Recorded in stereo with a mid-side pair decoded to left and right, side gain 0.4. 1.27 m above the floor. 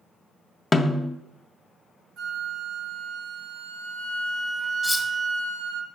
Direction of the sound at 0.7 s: 25° left.